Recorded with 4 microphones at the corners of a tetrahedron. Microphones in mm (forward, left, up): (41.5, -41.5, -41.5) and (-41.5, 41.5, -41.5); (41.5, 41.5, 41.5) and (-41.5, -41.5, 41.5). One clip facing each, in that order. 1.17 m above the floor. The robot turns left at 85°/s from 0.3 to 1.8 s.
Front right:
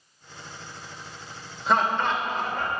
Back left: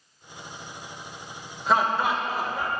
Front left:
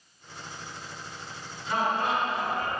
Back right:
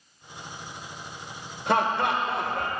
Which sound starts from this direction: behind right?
Laughter, at 1.7 s.